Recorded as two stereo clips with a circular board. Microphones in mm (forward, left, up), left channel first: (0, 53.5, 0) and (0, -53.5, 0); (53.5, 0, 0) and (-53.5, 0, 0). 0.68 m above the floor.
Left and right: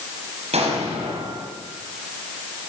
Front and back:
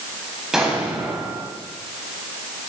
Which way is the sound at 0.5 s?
95° right.